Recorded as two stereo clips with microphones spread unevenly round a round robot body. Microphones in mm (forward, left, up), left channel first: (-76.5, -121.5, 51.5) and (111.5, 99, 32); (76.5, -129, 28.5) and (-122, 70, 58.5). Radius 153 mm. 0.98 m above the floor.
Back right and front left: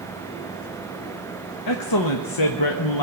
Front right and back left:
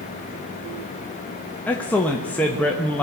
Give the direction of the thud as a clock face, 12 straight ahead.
I don't hear a thud.